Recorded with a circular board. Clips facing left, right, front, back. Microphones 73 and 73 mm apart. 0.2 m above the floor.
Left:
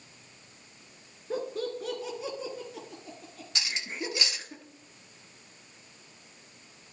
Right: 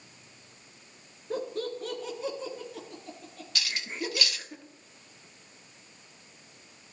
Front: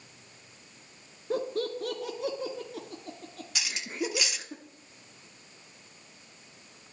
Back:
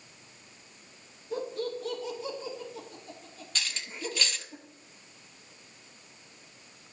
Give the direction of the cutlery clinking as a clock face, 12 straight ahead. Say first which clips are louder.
Right 1 dB, front 5 dB; 10 o'clock.